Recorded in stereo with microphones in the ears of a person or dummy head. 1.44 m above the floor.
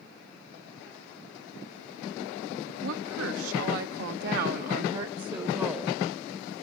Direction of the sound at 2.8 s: 80° right.